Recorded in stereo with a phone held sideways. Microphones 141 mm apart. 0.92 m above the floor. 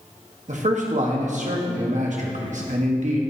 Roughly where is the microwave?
I don't hear a microwave.